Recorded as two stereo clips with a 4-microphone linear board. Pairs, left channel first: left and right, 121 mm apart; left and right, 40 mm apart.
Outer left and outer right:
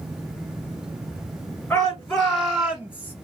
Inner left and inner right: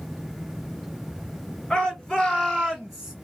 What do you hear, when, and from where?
1.7 s a shout: 10° left (ahead or behind), 2 m; by 3.1 s 15° right (ahead or behind), 1.7 m